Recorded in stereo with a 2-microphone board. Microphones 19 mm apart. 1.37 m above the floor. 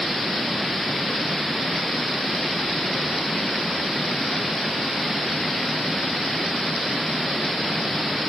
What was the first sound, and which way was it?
Only background noise.